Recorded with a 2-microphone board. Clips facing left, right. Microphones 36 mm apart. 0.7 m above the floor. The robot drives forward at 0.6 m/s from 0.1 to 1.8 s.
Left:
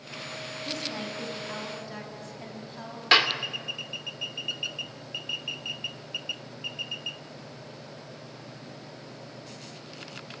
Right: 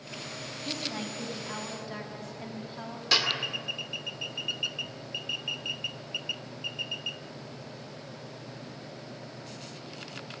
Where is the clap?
45° left (ahead or behind), 1.8 m.